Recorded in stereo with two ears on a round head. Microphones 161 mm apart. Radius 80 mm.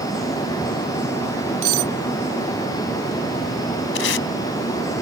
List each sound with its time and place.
1.6 s cutlery clinking: 80° right
4.0 s tape being pulled: 75° left (ahead or behind)